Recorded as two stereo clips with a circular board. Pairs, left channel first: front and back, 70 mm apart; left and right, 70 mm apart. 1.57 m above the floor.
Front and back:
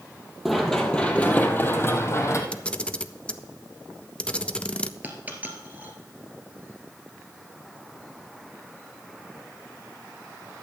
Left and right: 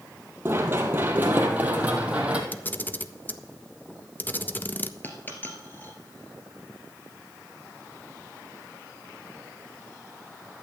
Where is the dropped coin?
130° left, 1.9 m.